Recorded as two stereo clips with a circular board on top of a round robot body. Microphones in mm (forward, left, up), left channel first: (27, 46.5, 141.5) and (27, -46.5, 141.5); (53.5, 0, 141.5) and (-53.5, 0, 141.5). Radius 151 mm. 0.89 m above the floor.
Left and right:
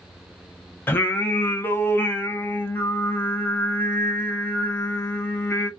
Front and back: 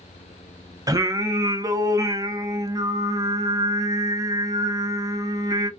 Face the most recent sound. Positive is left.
turn(degrees=145)